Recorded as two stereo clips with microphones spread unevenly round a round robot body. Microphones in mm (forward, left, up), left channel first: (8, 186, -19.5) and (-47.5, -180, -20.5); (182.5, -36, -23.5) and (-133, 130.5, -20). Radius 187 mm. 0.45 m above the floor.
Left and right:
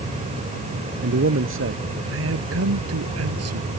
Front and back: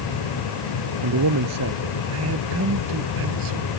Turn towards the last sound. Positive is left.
turn(degrees=-150)